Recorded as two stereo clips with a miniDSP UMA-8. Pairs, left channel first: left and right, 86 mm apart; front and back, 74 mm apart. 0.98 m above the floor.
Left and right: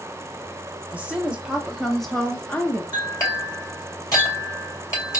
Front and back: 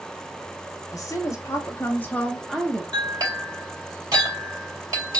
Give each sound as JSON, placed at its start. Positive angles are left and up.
{"t": 0.9, "sound": "a woman speaking", "azimuth_deg": -20, "distance_m": 1.1}
{"t": 2.9, "sound": "a clink", "azimuth_deg": 145, "distance_m": 2.5}